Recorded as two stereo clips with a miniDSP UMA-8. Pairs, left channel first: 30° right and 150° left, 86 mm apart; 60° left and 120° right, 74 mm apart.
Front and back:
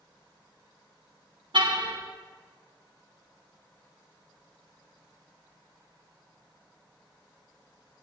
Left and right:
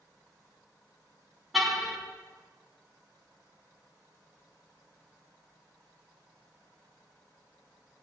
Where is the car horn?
150° left, 3 m.